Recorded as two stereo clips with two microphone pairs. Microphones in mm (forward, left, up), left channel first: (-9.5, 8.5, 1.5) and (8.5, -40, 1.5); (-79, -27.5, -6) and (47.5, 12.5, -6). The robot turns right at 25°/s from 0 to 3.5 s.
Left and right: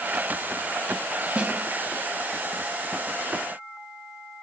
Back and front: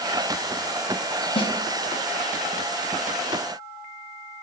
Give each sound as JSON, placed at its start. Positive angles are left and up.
{"t": 1.4, "sound": "a snare drum", "azimuth_deg": -130, "distance_m": 0.6}